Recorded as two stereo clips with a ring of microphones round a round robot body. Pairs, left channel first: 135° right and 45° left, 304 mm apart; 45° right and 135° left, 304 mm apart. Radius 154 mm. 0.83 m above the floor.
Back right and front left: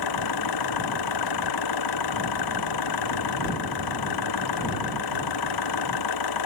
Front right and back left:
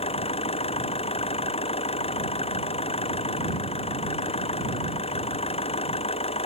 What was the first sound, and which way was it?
An engine running, 115° right.